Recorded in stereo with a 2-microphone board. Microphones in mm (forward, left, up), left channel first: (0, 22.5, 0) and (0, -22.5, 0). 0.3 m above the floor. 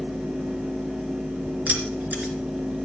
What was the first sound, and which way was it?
Keys jangling, 40° right (ahead or behind).